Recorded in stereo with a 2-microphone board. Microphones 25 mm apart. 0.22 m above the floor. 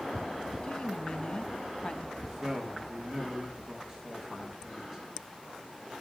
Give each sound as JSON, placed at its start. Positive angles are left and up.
{"t": 0.6, "sound": "a woman speaking", "side_deg": 40, "distance_m": 1.3}
{"t": 2.2, "sound": "a man speaking", "side_deg": -15, "distance_m": 4.5}